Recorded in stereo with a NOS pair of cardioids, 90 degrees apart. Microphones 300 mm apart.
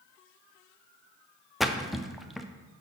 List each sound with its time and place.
1.6 s a splash: straight ahead, 0.5 m